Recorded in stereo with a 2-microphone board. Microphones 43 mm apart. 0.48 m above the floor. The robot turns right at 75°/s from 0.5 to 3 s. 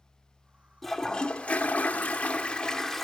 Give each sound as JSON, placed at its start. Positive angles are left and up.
{"t": 0.8, "sound": "a toilet flushing", "azimuth_deg": 5, "distance_m": 0.7}